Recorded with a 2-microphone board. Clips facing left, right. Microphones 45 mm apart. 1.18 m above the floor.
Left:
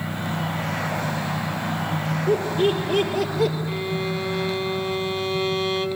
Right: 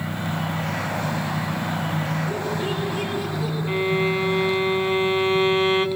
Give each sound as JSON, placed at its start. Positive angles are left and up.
{"t": 2.3, "sound": "laughter", "side_deg": 75, "distance_m": 5.5}
{"t": 3.7, "sound": "a violin", "side_deg": -30, "distance_m": 1.7}